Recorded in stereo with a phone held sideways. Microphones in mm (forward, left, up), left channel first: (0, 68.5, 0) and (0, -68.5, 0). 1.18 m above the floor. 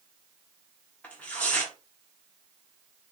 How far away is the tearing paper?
About 1.2 m.